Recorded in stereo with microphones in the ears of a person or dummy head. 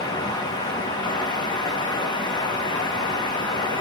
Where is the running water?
20° left (ahead or behind), 1.0 m.